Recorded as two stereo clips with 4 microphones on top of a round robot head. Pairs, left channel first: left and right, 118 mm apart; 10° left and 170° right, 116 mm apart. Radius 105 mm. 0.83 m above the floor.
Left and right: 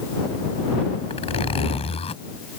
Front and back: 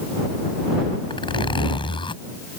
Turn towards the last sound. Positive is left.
turn(degrees=55)